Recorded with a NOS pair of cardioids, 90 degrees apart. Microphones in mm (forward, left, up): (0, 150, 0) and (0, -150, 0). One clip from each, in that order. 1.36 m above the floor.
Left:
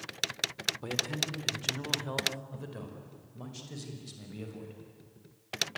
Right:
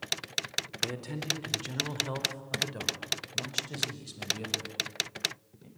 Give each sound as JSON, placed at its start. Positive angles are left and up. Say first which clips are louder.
{"t": 0.8, "sound": "a man speaking", "louder": "left 2 dB", "azimuth_deg": -5, "distance_m": 3.5}